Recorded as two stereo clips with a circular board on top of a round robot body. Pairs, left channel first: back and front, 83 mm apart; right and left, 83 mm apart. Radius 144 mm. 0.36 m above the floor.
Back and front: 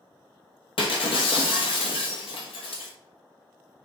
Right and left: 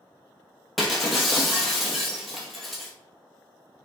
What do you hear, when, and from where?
0.8 s breaking glass: straight behind, 1.2 m